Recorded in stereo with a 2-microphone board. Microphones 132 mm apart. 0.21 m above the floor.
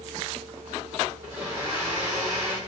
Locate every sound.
1.2 s a blender: 15° right (ahead or behind), 2.5 m